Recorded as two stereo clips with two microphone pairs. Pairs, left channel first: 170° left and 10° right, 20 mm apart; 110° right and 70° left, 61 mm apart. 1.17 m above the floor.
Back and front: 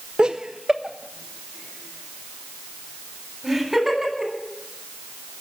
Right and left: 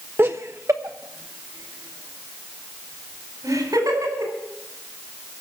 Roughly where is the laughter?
Ahead.